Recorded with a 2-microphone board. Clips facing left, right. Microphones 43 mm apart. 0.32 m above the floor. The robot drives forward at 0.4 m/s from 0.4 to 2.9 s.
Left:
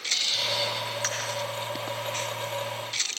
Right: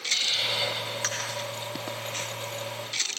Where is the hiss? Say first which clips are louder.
Right 1 dB; 20° right (ahead or behind), 1.9 m; by 1.6 s 25° right (ahead or behind), 1.6 m.